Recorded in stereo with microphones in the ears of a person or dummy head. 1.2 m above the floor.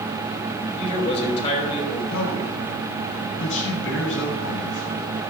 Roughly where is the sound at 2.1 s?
Left.